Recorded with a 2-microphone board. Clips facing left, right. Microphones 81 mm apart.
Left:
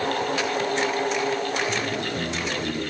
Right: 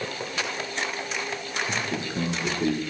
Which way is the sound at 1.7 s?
30° right (ahead or behind).